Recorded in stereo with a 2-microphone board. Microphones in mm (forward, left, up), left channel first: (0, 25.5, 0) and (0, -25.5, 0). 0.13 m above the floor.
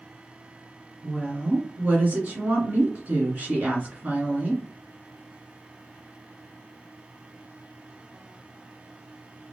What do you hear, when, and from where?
1.0 s a woman speaking: 30° right (ahead or behind), 1.4 m